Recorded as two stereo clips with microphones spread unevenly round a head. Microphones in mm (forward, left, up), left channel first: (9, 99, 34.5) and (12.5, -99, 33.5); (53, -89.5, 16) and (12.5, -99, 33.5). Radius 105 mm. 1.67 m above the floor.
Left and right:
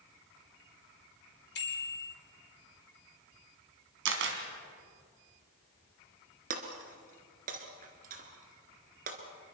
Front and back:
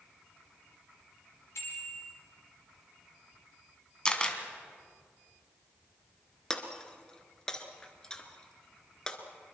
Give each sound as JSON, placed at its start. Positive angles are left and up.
{"t": 1.6, "sound": "a bicycle bell", "azimuth_deg": 55, "distance_m": 4.0}
{"t": 4.0, "sound": "a camera shutter", "azimuth_deg": -70, "distance_m": 2.5}
{"t": 6.5, "sound": "breaking glass", "azimuth_deg": -85, "distance_m": 1.9}